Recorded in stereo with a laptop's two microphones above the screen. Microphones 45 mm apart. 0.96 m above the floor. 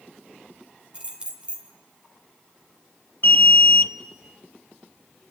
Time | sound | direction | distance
0.9 | keys jangling | 25° right (ahead or behind) | 1.8 m
3.2 | an alarm | 55° left (ahead or behind) | 0.7 m